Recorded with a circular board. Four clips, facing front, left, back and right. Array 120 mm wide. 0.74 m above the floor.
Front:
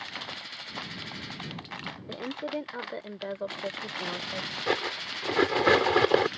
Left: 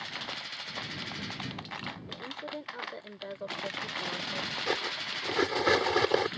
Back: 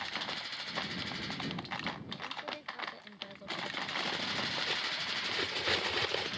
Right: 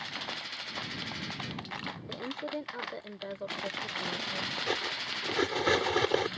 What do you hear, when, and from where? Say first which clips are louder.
2.1 s a woman speaking: right 6 dB, front 9 dB; 20° right; by 4.5 s 10° left
4.7 s cutlery clinking: left 2 dB, front 9 dB; 10° left